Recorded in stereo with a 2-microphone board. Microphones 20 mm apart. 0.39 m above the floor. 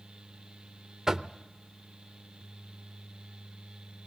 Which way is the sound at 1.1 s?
30° right (ahead or behind).